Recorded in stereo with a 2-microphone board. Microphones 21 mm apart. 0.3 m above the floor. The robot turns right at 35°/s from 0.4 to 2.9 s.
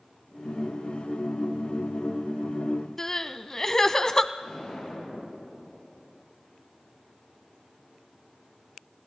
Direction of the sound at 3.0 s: 20° left (ahead or behind).